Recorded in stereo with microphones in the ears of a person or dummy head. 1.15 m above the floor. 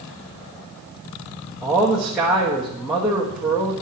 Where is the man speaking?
5° right (ahead or behind), 1.2 m.